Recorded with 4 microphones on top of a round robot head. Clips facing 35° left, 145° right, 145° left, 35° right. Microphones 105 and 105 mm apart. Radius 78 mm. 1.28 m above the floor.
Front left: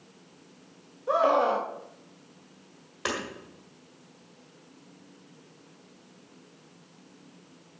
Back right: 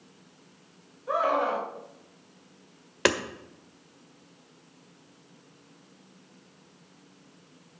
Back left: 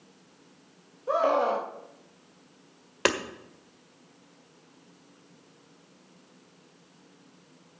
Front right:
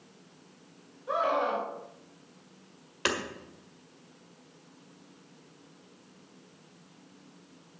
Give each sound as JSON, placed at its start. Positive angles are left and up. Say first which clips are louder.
{"t": 1.1, "sound": "a scream", "louder": "front left 3 dB, back left 4 dB", "azimuth_deg": 95, "distance_m": 1.5}
{"t": 3.0, "sound": "hammering", "louder": "back right 7 dB, back left 5 dB", "azimuth_deg": -170, "distance_m": 1.6}